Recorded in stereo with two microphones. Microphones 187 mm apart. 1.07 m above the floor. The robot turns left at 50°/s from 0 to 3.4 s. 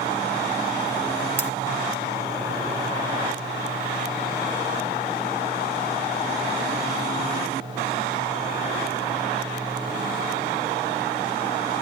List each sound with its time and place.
1.4 s cutlery clinking: 65° right (ahead or behind), 1.0 m; by 1.5 s 60° right (ahead or behind), 1.0 m